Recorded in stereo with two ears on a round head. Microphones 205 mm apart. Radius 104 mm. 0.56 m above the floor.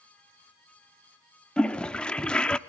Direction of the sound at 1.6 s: 5° left (ahead or behind).